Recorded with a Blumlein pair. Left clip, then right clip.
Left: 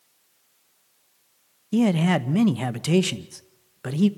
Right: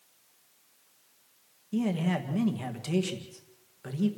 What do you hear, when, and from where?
1.7 s a man speaking: 60° left, 1.1 m